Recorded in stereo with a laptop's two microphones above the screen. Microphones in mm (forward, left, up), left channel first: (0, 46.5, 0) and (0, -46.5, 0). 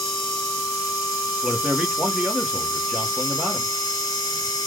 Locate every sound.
0.0 s a machine running: 40° left (ahead or behind), 1.3 m
1.4 s a man speaking: 10° right (ahead or behind), 0.9 m